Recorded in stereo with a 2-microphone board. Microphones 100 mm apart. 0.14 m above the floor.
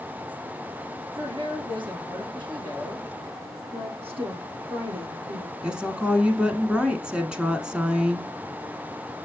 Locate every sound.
1.2 s a woman speaking: 50° right (ahead or behind), 2.5 m
3.7 s a woman speaking: 70° right (ahead or behind), 5 m
5.6 s a woman speaking: 10° right (ahead or behind), 1.1 m